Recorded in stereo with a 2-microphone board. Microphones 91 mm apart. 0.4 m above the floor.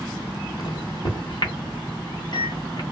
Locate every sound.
0.6 s a microwave: 55° left (ahead or behind), 1.4 m